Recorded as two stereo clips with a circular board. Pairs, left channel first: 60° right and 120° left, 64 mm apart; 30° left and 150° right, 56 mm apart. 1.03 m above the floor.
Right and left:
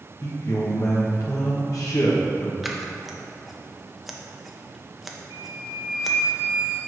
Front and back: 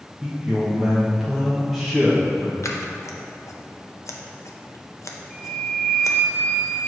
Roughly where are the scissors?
Ahead left.